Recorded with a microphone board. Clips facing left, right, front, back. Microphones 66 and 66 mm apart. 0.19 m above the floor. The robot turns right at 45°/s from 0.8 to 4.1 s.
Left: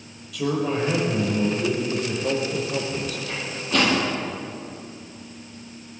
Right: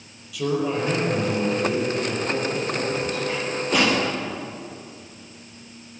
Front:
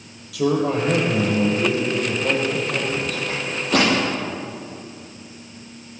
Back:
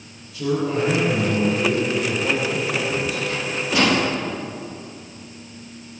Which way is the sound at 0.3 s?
Straight ahead.